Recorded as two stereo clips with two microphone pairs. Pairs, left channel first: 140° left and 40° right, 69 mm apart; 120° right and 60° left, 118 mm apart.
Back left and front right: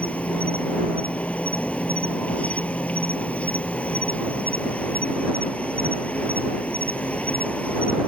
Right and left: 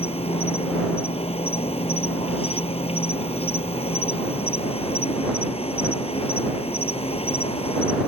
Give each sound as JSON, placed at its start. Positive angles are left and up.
{"t": 0.0, "sound": "an insect", "azimuth_deg": -150}